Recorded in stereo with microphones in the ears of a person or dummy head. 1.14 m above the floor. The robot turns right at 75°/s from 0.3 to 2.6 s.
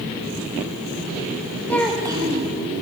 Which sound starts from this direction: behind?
A child speaking, at 1.7 s.